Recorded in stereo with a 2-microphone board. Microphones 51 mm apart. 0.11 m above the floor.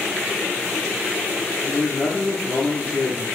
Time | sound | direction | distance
1.6 | a man speaking | 40° left (ahead or behind) | 1.4 m